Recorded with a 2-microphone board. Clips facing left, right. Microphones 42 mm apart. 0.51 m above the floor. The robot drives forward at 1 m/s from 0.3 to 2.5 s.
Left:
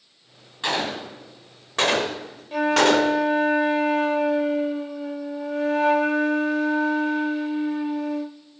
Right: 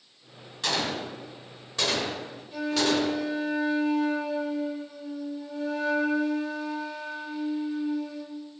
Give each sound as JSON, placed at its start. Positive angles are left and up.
{"t": 0.6, "sound": "a gunshot", "side_deg": 20, "distance_m": 2.0}
{"t": 2.5, "sound": "a flute", "side_deg": 55, "distance_m": 0.9}